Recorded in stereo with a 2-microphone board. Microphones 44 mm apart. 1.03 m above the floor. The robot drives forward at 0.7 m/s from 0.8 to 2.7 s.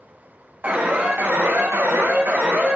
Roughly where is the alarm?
Right.